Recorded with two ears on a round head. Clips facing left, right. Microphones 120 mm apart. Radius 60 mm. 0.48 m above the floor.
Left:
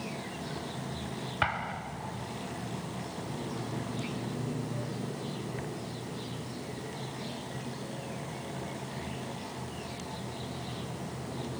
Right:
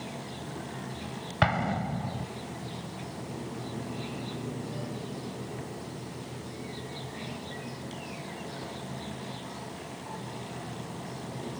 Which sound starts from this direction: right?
An explosion, at 1.4 s.